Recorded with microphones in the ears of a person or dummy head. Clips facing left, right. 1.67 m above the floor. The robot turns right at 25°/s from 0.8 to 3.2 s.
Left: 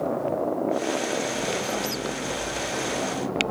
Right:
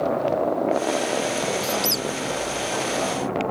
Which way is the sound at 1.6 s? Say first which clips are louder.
Right 3 dB; 60° right (ahead or behind).